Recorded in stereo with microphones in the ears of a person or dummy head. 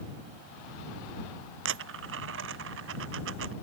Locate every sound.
1.6 s a dropped coin: 80° right